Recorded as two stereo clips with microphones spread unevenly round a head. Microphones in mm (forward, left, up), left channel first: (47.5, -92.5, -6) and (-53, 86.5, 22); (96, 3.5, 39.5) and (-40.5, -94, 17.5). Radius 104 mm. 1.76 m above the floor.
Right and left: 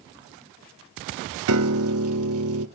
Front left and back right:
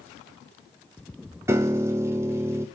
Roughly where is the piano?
Behind left.